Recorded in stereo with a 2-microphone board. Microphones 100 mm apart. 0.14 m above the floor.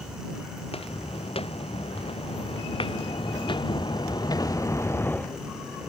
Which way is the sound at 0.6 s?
75° left (ahead or behind).